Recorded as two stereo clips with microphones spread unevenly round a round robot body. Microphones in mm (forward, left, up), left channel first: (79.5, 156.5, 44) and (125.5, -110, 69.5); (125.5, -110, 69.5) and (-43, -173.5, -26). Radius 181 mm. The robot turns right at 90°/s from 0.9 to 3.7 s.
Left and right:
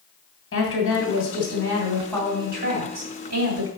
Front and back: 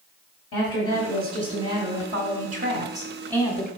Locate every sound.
0.5 s a woman speaking: 70° left, 2.5 m; by 3.7 s 40° right, 2.5 m